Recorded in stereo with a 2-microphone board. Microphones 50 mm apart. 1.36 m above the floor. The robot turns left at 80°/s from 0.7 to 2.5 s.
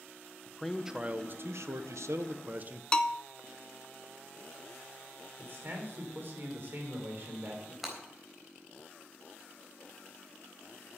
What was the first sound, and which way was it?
A man speaking, 5° left.